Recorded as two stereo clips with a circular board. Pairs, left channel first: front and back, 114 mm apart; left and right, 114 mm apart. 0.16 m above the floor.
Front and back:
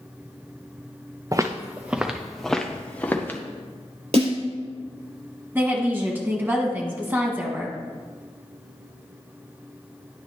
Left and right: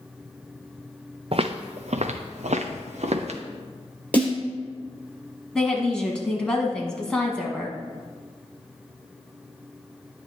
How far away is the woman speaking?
About 1.2 m.